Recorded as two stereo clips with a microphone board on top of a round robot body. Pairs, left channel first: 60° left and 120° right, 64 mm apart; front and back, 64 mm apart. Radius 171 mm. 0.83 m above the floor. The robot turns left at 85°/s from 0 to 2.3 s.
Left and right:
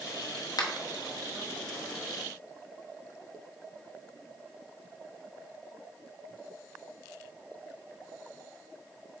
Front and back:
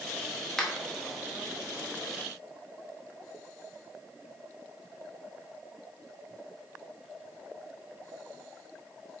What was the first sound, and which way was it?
A finger snap, 85° left.